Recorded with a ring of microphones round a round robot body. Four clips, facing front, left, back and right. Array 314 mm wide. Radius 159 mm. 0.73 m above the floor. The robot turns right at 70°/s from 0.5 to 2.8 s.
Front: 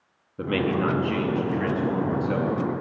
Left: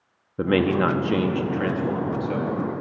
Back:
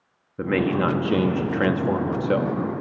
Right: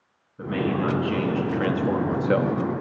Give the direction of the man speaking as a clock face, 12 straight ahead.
9 o'clock.